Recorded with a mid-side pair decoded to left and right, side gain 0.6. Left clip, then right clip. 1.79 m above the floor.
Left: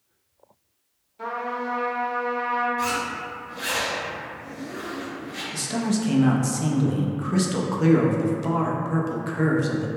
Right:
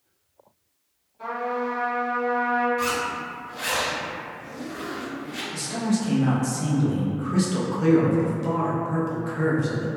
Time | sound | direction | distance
1.2 | a trumpet | 50° left | 1.0 m
2.8 | a zipper | 15° right | 1.0 m
5.5 | a man speaking | 25° left | 0.5 m